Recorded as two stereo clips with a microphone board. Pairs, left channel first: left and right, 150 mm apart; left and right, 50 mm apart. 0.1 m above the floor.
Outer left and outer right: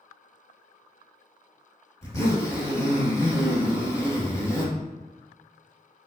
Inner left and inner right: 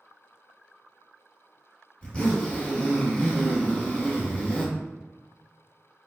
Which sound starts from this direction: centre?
A zipper, at 2.0 s.